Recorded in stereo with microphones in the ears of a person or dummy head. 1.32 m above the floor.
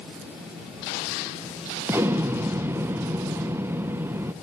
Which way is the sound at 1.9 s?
15° right (ahead or behind).